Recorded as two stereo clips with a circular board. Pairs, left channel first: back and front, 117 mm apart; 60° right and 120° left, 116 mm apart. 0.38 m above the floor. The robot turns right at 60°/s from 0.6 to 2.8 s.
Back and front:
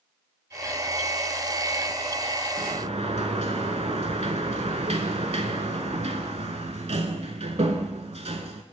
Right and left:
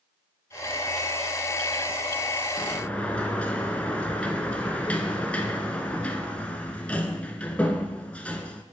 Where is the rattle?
I don't hear a rattle.